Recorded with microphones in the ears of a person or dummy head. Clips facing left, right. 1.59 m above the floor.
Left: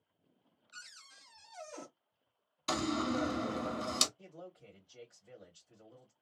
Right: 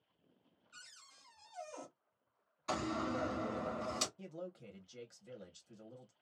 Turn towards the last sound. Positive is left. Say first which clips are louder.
# right 4 dB
turn(degrees=-70)  # may be behind; listen again after turning